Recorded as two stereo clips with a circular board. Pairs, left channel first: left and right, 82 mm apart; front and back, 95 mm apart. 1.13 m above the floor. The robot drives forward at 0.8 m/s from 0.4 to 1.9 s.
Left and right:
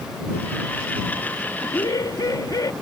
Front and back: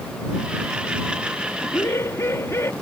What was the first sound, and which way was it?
Laughter, 50° left.